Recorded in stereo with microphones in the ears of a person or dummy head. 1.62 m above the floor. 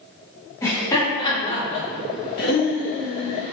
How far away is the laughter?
About 1.3 m.